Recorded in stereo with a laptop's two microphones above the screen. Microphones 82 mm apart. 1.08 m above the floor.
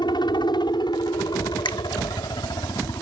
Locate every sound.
0.0 s a helicopter: 65° left (ahead or behind)
1.6 s a finger snap: 85° left